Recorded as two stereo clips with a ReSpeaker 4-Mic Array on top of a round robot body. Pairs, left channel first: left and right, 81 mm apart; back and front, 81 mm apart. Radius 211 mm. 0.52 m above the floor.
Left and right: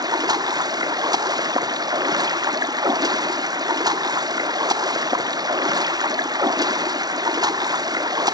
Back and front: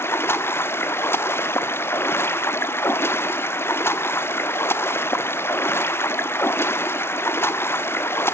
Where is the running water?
120° right, 1.3 m.